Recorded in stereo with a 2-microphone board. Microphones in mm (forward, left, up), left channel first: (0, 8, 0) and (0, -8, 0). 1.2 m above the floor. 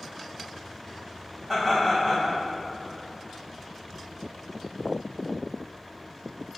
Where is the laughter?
5° right (ahead or behind), 1.9 m.